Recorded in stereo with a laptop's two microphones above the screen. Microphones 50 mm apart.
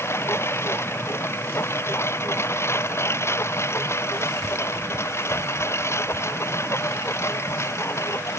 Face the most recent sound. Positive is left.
turn(degrees=70)  # may be behind; listen again after turning